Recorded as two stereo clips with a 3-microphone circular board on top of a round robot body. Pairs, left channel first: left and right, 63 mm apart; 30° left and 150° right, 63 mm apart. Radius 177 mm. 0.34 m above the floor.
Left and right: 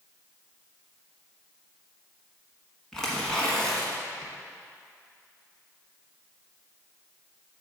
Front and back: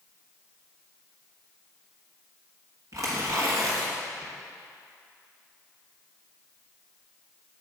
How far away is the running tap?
No running tap in this recording.